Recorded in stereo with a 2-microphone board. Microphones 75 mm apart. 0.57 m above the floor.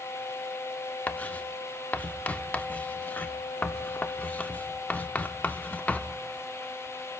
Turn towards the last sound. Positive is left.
turn(degrees=20)  # may be behind; listen again after turning